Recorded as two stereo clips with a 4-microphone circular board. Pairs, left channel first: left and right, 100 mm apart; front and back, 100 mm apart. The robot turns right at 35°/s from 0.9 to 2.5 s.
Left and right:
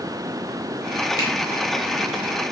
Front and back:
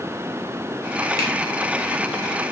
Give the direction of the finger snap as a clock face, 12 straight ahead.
11 o'clock.